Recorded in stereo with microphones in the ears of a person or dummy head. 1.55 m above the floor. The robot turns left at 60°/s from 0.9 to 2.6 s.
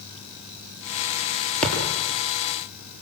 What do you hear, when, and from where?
1.6 s a thud: 5° left (ahead or behind), 7 m; by 2.0 s 15° right (ahead or behind), 7 m